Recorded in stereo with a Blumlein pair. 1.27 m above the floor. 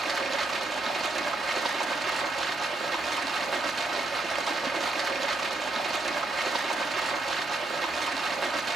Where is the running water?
15° right, 0.9 m.